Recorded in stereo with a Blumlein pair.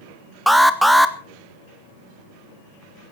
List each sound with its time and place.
0.5 s an alarm: 5° right, 1.0 m